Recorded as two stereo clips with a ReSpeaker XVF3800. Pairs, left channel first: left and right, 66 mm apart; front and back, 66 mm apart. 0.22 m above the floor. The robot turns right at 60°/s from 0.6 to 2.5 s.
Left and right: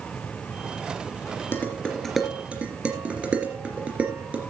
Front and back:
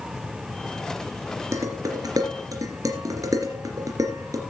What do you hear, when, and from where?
1.5 s dishes clattering: 145° left, 3 m; by 4.4 s 160° right, 3 m